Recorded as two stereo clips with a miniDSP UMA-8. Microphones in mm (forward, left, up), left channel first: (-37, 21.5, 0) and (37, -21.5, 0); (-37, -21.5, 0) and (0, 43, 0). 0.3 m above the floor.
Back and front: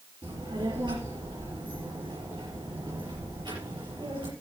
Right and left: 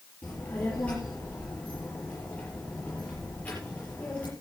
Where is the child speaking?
50° right, 5 m.